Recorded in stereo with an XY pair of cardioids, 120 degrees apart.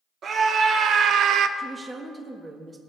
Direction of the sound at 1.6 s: 15° right.